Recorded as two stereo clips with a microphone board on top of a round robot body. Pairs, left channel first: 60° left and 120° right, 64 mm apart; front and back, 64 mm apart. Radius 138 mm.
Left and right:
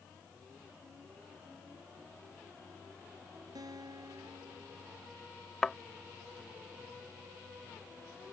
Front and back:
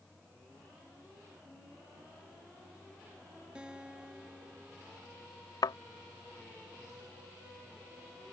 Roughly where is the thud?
Ahead right.